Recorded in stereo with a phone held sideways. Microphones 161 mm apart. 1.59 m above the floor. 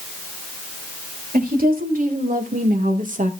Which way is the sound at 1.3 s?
65° right (ahead or behind).